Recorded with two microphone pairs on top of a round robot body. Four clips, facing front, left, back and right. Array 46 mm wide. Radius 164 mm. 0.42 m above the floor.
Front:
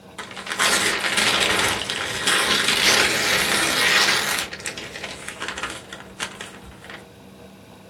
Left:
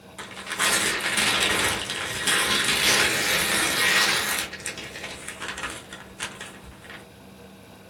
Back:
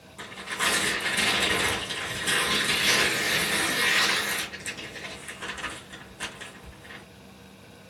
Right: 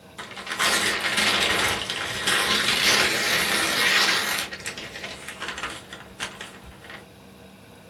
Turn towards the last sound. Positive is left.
turn(degrees=5)